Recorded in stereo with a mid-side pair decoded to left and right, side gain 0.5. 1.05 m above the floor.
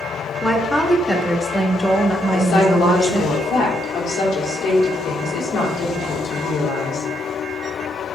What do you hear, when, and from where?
0.4 s a woman speaking: 10° left, 1.5 m
2.3 s a woman speaking: 65° left, 2.5 m